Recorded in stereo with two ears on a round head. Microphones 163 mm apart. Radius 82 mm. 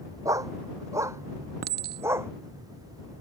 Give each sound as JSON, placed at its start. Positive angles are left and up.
{"t": 0.2, "sound": "a dog barking", "side_deg": -20}
{"t": 1.6, "sound": "a clink", "side_deg": -55}